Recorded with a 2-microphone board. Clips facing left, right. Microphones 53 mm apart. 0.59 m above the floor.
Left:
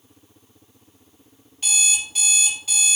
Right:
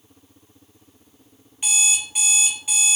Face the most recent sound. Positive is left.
turn(degrees=-20)  # may be behind; listen again after turning